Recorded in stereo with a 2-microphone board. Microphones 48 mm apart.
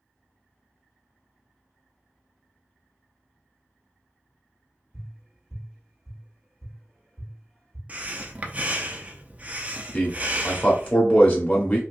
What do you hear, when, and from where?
4.9 s tapping: 5° right (ahead or behind), 2 m
7.9 s breathing: 30° right (ahead or behind), 0.6 m
9.9 s a man speaking: 30° left (ahead or behind), 1.6 m